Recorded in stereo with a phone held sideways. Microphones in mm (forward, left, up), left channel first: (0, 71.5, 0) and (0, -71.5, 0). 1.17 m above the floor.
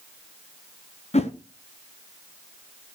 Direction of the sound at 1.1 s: 45° left (ahead or behind).